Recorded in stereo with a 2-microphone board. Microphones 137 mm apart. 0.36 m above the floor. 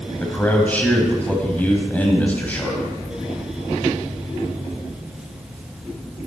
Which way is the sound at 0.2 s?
10° left (ahead or behind).